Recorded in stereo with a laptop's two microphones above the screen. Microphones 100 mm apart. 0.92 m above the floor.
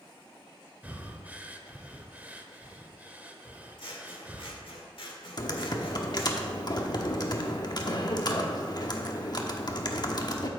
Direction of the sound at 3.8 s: 55° left (ahead or behind).